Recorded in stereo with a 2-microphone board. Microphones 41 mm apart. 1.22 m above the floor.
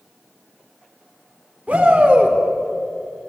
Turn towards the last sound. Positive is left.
turn(degrees=-35)  # may be behind; listen again after turning